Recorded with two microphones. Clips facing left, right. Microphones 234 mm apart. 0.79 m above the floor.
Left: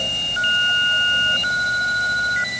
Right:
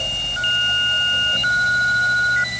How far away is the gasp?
I don't hear a gasp.